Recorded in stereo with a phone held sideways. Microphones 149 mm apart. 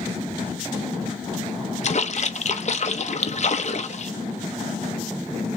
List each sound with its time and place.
1.8 s a splash: 50° left (ahead or behind), 0.6 m